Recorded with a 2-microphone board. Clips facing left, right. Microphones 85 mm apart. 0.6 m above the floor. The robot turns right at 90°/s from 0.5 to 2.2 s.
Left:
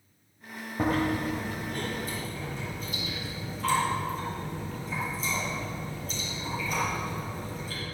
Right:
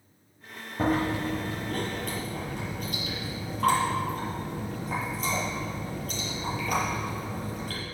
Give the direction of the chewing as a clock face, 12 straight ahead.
6 o'clock.